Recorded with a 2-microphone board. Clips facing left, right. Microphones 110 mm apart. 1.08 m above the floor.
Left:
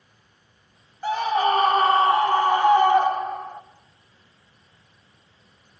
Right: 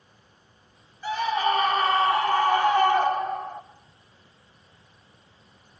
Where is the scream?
45° left (ahead or behind), 2.5 m; by 3.6 s centre (ahead or behind), 2.5 m.